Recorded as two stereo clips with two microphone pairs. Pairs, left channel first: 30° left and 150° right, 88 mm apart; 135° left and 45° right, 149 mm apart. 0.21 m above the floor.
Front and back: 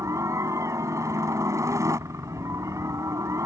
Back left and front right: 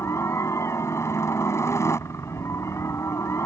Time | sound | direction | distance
0.0 | a helicopter | 165° right | ?